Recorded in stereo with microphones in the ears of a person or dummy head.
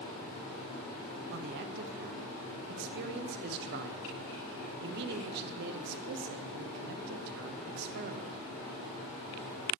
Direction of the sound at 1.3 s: 65° right (ahead or behind).